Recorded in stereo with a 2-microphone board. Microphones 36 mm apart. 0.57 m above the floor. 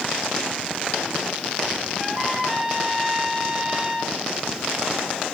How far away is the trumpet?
About 3 m.